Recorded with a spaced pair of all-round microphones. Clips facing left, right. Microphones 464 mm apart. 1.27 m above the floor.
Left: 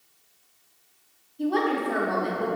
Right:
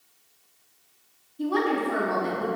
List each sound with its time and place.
1.4 s a woman speaking: 25° right (ahead or behind), 0.9 m